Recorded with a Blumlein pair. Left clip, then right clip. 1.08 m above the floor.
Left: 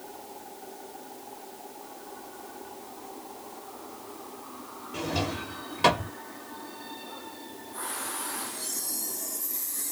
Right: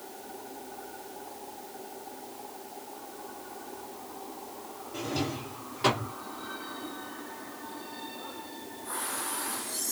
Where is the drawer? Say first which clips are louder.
Left 3 dB; 70° left, 1.3 m.